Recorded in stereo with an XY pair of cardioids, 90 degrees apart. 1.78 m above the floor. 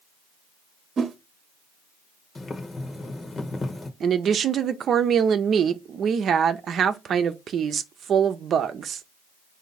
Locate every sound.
1.0 s a whoosh: 55° right, 0.9 m
2.4 s boiling: 40° left, 1.1 m
4.0 s a woman speaking: 65° right, 0.7 m